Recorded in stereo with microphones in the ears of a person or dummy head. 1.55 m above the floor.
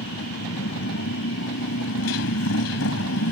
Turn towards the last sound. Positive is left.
turn(degrees=70)  # may be behind; listen again after turning